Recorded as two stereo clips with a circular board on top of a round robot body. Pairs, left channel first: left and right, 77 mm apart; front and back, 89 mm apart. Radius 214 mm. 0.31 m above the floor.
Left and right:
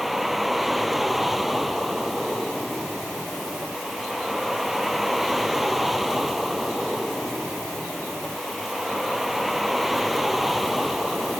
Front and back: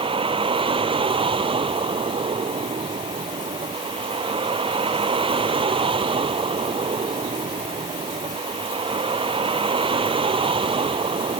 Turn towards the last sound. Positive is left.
turn(degrees=180)